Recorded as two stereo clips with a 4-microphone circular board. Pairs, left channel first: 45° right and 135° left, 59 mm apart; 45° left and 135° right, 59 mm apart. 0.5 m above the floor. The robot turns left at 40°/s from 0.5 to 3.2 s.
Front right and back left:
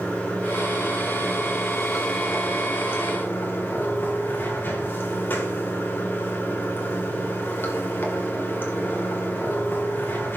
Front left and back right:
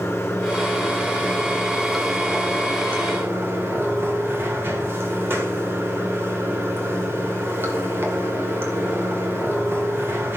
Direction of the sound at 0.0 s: 15° left.